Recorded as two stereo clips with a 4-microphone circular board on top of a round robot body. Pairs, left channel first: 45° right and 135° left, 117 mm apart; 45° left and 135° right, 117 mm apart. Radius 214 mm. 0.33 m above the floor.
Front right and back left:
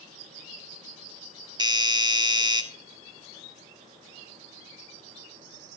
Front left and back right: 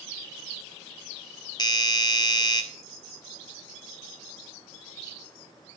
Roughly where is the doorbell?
Left.